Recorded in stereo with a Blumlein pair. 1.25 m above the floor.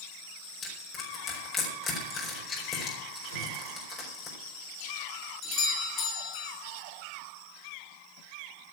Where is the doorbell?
30° left, 3 m.